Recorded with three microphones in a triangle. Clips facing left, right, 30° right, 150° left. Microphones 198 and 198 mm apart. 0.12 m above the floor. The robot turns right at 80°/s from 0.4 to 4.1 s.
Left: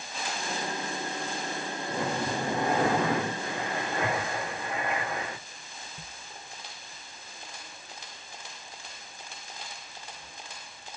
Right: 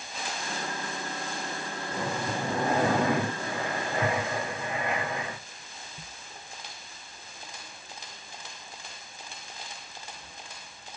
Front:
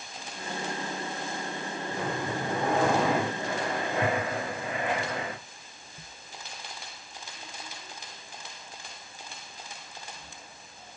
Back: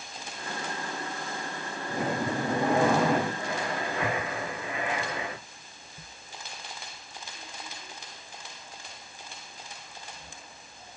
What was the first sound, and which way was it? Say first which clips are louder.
Breathing: left 1 dB, back 4 dB; 155° left.